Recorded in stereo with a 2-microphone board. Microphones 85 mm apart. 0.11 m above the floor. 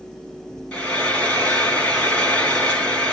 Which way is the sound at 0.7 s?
15° left (ahead or behind).